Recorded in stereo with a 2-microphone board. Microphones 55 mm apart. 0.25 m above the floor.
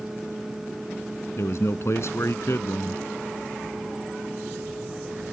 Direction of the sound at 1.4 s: 60° left (ahead or behind).